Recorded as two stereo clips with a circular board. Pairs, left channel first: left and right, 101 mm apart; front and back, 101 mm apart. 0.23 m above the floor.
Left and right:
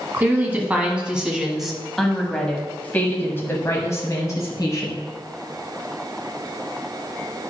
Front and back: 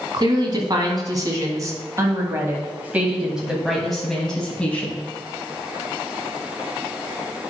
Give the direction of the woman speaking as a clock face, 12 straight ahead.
5 o'clock.